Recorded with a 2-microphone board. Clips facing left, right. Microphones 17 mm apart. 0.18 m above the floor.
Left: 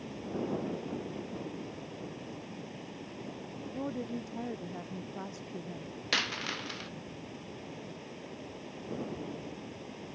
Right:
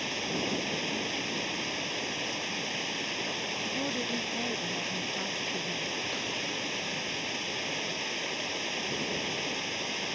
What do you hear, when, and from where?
0.0 s running water: 65° right (ahead or behind)
3.7 s a woman speaking: 5° right (ahead or behind)
6.1 s a dropped coin: 50° left (ahead or behind)